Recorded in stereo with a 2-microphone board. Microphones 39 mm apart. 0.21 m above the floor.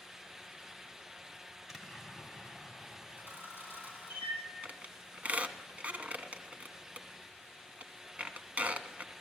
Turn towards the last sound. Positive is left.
turn(degrees=-40)  # may be behind; listen again after turning